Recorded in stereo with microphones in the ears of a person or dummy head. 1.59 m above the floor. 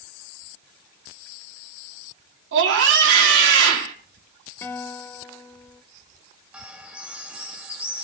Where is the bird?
5° right (ahead or behind), 1.8 m.